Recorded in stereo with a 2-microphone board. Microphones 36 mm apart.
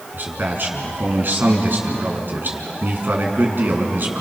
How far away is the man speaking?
About 4 m.